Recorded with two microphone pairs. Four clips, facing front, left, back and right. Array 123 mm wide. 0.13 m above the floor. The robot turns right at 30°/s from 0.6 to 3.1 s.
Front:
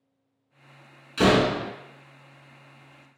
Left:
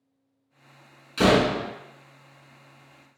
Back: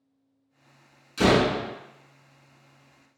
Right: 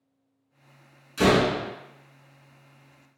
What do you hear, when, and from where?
1.2 s a door slam: 45° left, 0.8 m; by 1.7 s 65° left, 0.8 m